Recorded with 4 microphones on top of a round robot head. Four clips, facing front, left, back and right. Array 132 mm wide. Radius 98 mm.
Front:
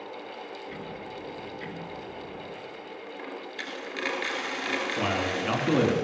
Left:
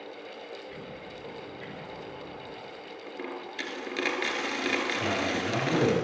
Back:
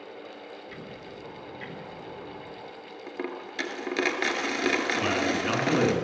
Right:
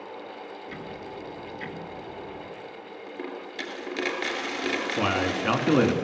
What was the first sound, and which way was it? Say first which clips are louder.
Ticking: right 4 dB, front 3 dB; 60° right.